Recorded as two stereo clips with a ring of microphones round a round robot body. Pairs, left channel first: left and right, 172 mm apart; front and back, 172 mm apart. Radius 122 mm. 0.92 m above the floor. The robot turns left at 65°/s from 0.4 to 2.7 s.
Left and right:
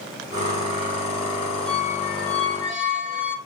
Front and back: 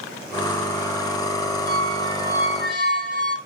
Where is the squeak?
75° left, 3 m; by 3.4 s 5° left, 3 m.